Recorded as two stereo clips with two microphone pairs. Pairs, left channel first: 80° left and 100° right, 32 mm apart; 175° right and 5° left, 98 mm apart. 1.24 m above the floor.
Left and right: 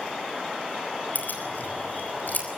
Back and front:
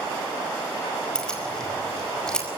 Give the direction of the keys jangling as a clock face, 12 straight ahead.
9 o'clock.